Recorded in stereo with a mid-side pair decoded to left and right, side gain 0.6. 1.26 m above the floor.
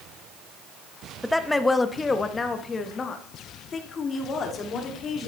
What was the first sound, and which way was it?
A woman speaking, 5° left.